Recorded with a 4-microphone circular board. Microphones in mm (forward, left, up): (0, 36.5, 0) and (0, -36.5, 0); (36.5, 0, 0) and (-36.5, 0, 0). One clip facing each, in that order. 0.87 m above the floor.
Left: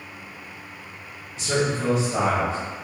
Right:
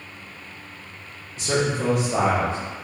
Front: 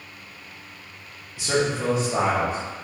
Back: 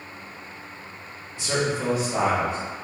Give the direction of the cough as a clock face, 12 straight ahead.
I don't hear a cough.